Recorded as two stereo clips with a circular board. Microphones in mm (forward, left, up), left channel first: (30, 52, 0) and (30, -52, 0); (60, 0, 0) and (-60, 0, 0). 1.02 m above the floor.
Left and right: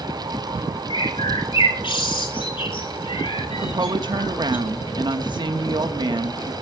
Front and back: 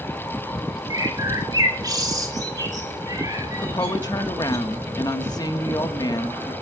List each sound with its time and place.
0.9 s a bird: 125° left, 2.5 m
3.6 s a woman speaking: 50° right, 1.6 m